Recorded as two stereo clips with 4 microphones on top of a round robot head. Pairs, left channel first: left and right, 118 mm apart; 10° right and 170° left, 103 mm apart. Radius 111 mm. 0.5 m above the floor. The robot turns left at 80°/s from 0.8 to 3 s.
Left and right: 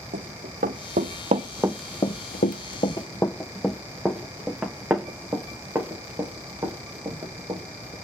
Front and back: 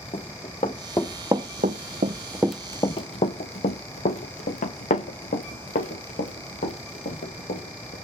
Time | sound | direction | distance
0.1 | running footsteps | 60° right | 1.5 m